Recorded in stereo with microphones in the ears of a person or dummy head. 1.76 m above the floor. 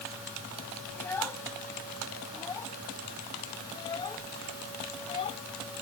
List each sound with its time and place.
0.9 s a child speaking: 15° left (ahead or behind); by 5.4 s 35° left (ahead or behind)